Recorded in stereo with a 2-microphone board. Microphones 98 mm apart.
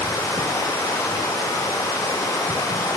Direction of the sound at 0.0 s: 35° left (ahead or behind).